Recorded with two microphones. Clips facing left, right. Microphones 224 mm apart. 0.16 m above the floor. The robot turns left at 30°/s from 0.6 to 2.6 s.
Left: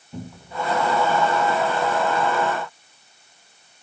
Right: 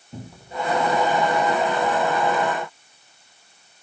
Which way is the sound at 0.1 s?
25° right (ahead or behind).